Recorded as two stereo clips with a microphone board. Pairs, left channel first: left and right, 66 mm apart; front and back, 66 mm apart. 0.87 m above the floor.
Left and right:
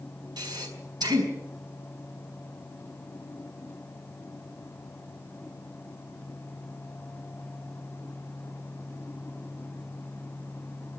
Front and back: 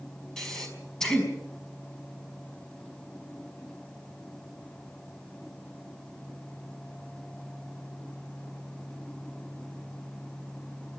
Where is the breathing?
80° right, 5 m.